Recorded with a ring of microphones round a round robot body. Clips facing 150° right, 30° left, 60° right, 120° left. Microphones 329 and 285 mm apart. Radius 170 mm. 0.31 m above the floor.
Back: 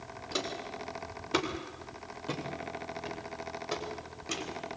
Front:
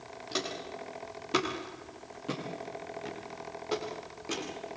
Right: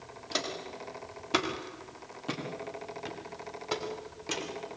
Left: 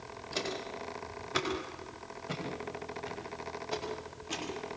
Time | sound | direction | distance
0.3 | footsteps | 55° right | 8 m